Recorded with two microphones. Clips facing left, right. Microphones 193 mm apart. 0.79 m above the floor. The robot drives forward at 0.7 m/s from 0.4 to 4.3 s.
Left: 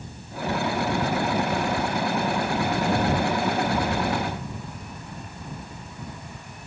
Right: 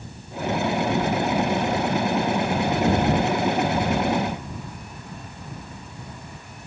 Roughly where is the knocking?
Right.